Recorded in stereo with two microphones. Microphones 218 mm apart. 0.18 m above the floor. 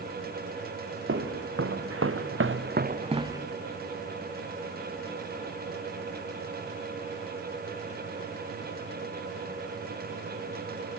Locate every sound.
1.1 s footsteps: 70° right (ahead or behind), 2 m; by 3.4 s 10° right (ahead or behind), 1.1 m